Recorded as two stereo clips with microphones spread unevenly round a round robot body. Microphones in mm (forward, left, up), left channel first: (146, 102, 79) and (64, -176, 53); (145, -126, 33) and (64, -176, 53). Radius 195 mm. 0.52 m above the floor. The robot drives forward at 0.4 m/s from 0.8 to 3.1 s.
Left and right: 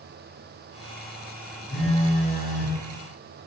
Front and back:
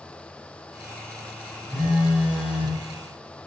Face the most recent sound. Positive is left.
turn(degrees=135)